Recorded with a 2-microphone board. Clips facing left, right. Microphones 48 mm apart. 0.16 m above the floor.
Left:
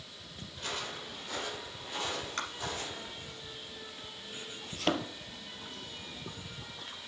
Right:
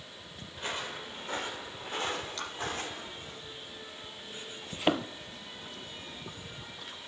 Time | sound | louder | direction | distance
0.5 | footsteps | right 2 dB | 30° right (ahead or behind) | 3.5 m
2.4 | tapping | left 2 dB | 45° left (ahead or behind) | 2.5 m
4.7 | a thud | right 3 dB | 20° right (ahead or behind) | 0.8 m